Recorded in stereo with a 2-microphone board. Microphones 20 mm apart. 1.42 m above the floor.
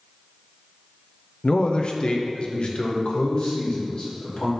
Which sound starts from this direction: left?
A man speaking, at 1.4 s.